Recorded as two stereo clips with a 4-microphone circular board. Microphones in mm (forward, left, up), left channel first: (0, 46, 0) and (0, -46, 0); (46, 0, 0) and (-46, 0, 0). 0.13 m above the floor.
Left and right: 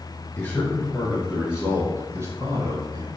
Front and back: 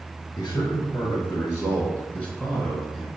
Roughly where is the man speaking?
Ahead.